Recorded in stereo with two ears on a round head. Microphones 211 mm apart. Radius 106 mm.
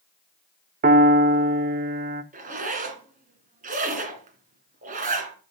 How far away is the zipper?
About 2 m.